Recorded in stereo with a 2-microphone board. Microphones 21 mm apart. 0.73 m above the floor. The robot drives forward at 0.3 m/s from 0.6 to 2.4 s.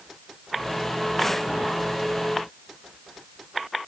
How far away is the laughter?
I don't hear laughter.